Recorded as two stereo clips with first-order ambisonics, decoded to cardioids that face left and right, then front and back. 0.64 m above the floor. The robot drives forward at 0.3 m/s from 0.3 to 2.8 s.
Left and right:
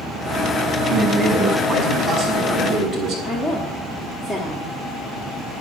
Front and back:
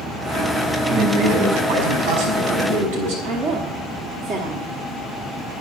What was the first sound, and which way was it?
A man speaking, 170° left.